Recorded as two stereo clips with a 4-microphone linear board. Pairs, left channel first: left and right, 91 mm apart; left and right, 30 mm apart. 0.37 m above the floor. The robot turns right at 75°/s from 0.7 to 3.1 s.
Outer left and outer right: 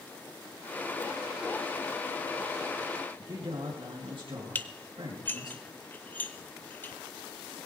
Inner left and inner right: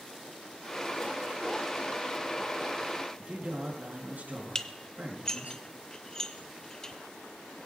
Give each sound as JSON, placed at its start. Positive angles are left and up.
{"t": 3.2, "sound": "a man speaking", "side_deg": -70, "distance_m": 5.0}
{"t": 4.5, "sound": "dishes clattering", "side_deg": 20, "distance_m": 0.7}